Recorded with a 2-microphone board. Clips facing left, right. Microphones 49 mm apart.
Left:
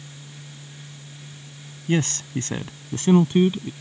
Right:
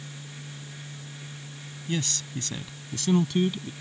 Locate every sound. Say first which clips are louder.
1.9 s a man speaking: left 8 dB; 45° left (ahead or behind); by 3.7 s 30° left (ahead or behind)